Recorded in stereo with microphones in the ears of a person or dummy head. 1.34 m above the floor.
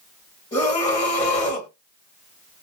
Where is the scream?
25° left (ahead or behind), 2 m.